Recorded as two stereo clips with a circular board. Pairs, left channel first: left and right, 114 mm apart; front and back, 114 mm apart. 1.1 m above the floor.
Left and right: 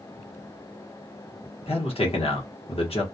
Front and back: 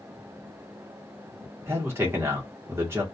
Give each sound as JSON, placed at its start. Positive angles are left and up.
{"t": 1.7, "sound": "a man speaking", "azimuth_deg": 115, "distance_m": 1.0}